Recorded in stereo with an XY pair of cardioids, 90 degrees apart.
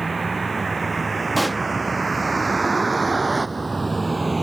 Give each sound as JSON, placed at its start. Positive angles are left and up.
{"t": 0.0, "sound": "a vehicle", "azimuth_deg": -30}
{"t": 1.4, "sound": "a pop", "azimuth_deg": -10}